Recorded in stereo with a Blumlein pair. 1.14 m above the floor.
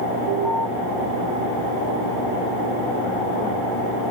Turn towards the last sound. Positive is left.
turn(degrees=55)